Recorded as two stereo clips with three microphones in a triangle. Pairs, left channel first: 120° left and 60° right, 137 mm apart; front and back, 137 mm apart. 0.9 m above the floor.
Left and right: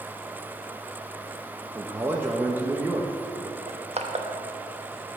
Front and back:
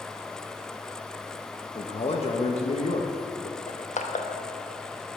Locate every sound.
1.8 s a man speaking: 10° left, 0.9 m
3.7 s crushing: 20° right, 1.0 m